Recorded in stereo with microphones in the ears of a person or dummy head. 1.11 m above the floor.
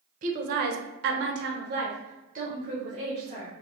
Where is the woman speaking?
40° right (ahead or behind), 0.8 m; by 3.5 s 35° right (ahead or behind), 1.6 m.